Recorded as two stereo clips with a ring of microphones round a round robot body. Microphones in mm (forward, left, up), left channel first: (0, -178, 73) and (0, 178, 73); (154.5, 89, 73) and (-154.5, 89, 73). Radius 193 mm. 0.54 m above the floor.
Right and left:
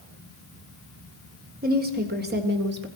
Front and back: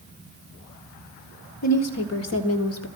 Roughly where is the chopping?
I don't hear chopping.